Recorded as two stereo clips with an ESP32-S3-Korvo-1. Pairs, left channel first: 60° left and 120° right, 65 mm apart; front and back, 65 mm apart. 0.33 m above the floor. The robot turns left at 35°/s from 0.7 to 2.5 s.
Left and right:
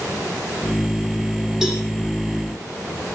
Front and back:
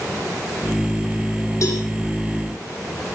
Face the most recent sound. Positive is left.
turn(degrees=-70)